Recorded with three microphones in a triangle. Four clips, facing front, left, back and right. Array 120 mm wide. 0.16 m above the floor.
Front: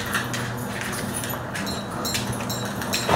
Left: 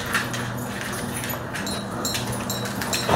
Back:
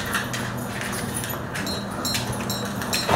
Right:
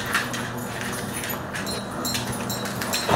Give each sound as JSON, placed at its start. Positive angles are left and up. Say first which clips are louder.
{"t": 1.7, "sound": "tapping", "louder": "left 1 dB, even", "azimuth_deg": 145, "distance_m": 3.5}